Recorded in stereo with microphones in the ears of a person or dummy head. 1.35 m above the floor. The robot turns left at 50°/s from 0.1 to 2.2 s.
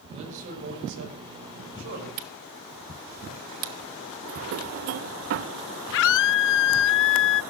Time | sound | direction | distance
0.1 | a man speaking | 30° right | 6 m
2.2 | a camera shutter | 40° right (ahead or behind) | 0.7 m
4.2 | a drawer | 50° right (ahead or behind) | 0.5 m
5.9 | a scream | 65° left (ahead or behind) | 0.6 m